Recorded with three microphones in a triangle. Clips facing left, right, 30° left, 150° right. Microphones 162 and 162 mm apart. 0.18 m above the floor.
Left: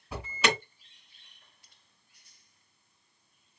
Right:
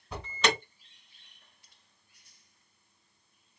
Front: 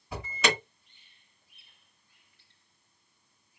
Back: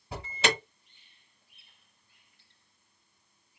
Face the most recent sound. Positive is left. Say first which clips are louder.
# even, even
turn(degrees=170)